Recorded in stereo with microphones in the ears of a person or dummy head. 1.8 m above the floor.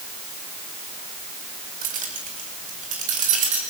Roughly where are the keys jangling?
Right.